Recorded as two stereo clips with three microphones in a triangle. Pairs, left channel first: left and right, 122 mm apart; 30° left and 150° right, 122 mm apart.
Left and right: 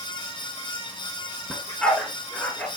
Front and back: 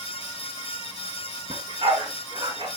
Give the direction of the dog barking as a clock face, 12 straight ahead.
6 o'clock.